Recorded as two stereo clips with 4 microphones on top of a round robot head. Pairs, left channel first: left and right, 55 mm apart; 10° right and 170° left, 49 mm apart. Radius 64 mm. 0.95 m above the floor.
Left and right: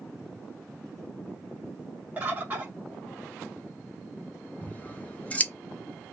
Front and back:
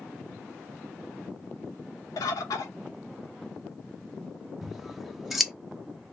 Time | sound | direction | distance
2.2 | a bird | 20° right | 0.7 m
4.6 | scissors | 90° left | 0.7 m